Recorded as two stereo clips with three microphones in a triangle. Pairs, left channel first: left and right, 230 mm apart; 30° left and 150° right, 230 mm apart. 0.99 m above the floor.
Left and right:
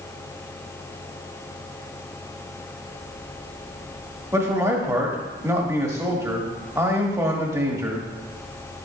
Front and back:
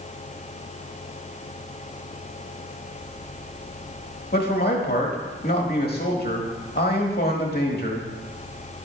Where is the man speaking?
15° right, 1.7 m.